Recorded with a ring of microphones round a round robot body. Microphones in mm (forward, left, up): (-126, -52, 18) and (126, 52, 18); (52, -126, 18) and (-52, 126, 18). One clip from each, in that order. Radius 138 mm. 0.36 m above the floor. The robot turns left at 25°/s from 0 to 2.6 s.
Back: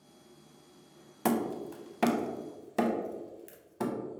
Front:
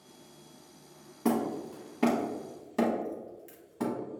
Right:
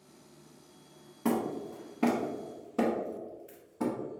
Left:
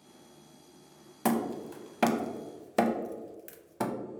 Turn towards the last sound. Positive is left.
turn(degrees=125)